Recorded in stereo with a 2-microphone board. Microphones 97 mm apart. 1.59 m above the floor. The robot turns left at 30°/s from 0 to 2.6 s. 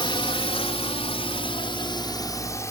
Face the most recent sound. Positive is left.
turn(degrees=30)  # may be behind; listen again after turning